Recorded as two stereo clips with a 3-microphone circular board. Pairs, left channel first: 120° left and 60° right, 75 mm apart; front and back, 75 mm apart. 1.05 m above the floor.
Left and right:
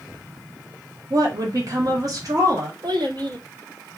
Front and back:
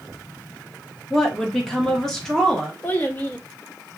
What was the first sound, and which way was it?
A woman speaking, 85° right.